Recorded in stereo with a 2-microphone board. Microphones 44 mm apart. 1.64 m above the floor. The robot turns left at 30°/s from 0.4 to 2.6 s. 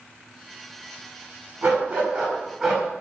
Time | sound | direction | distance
1.6 | a dog barking | 30° right (ahead or behind) | 6.5 m